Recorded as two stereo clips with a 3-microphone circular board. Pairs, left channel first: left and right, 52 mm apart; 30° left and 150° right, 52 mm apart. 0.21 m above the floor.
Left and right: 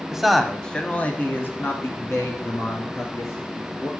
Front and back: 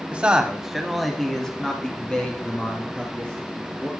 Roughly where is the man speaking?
Behind right.